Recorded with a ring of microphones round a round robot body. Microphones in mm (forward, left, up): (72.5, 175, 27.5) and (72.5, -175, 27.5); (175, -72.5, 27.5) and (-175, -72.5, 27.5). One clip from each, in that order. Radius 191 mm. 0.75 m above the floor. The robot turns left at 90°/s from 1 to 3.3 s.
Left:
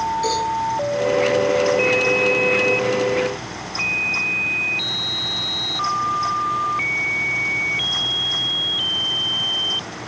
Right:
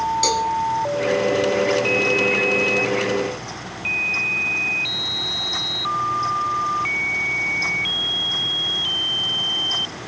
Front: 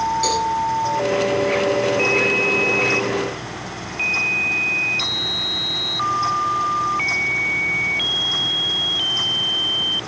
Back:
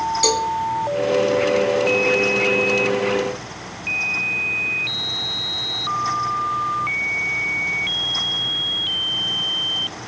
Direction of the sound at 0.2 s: 140° right.